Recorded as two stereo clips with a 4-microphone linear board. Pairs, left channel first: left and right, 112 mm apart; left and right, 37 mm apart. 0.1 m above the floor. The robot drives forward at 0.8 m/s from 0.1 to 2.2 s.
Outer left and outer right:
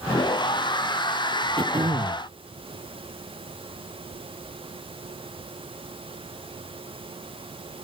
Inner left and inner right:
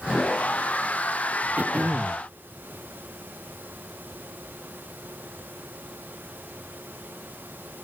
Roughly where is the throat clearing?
Right.